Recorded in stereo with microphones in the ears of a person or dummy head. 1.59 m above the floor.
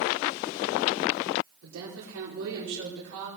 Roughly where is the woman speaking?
Right.